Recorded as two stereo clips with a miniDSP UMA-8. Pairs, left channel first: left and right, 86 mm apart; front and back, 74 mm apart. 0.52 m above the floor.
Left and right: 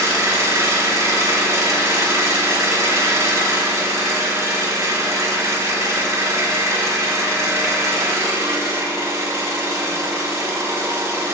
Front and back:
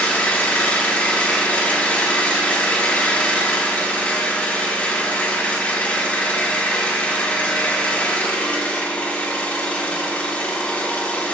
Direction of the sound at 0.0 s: 55° right.